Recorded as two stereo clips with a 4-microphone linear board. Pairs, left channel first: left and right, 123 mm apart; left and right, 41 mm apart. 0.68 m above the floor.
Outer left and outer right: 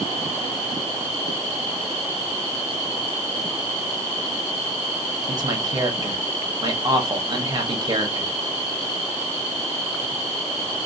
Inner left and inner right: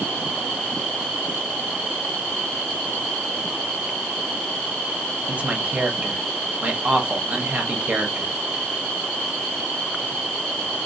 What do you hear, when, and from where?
5.3 s a man speaking: 35° right (ahead or behind), 0.7 m